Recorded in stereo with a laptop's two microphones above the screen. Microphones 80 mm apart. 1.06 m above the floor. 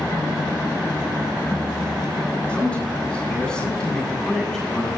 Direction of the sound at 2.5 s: 15° left (ahead or behind).